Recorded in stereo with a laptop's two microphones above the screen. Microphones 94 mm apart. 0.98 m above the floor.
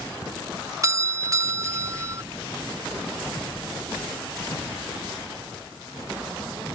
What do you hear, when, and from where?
0.8 s a doorbell: 35° right (ahead or behind)